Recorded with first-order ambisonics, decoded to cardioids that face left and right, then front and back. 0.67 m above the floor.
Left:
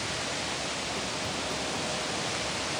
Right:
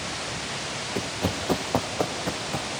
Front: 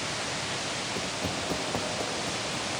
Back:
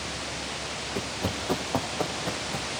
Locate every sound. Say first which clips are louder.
0.9 s running footsteps: right 3 dB, even; 110° right, 0.8 m; by 2.7 s 105° right, 3 m